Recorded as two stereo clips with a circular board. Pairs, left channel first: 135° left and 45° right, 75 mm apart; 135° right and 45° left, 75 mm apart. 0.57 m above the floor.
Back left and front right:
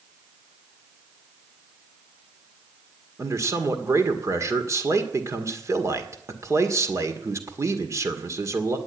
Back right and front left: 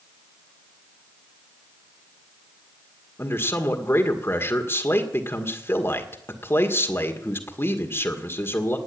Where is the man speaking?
80° right, 1.9 m.